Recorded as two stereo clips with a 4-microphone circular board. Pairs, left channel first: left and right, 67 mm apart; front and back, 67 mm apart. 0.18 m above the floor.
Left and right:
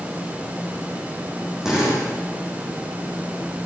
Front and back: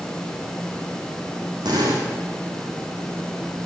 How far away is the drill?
About 7 m.